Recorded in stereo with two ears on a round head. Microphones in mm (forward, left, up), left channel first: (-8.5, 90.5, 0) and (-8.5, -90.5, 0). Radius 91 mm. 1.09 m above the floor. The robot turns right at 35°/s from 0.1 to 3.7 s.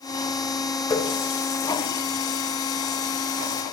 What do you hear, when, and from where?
0.9 s a running tap: 15° left (ahead or behind), 2.5 m; by 3.6 s 65° left (ahead or behind), 2.5 m